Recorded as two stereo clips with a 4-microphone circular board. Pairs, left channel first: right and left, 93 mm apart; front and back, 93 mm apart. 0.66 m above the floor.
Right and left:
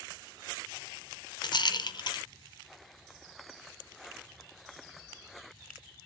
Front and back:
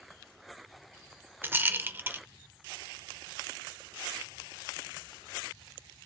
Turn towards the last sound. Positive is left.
turn(degrees=-115)